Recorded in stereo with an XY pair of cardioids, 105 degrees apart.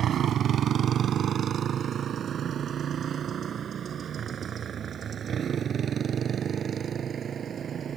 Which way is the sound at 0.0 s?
60° right.